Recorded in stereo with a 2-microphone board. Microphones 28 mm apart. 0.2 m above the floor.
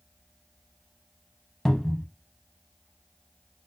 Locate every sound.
1.6 s a cupboard door: 15° left (ahead or behind), 0.5 m